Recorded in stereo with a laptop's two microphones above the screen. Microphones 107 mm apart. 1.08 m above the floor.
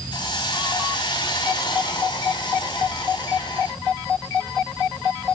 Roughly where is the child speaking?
Left.